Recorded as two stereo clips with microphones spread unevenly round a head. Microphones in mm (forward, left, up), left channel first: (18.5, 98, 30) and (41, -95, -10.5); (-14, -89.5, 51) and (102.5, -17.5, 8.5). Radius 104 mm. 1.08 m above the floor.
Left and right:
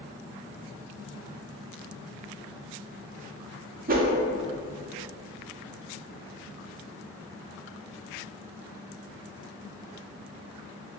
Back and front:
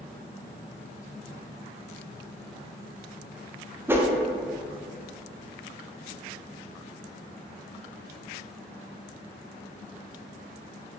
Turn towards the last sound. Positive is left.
turn(degrees=-40)